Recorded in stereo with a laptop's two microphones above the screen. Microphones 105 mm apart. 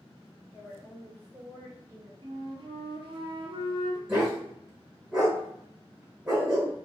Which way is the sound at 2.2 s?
55° right (ahead or behind).